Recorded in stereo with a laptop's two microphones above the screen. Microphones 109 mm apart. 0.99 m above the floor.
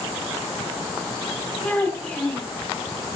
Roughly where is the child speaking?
Centre.